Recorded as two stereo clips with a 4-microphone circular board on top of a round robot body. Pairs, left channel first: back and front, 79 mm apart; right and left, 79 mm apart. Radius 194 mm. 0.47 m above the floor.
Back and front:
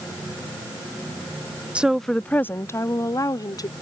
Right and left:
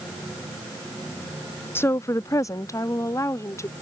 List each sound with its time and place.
1.8 s a woman speaking: 60° right; by 3.7 s 140° right